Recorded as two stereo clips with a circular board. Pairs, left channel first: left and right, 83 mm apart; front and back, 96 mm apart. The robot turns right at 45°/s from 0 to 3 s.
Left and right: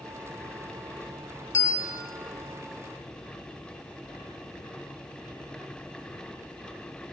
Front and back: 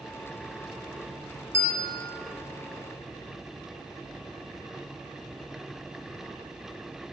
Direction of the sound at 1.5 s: 130° left.